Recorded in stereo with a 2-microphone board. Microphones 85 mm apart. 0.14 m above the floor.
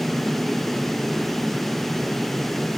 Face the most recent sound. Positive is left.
No sound to turn to.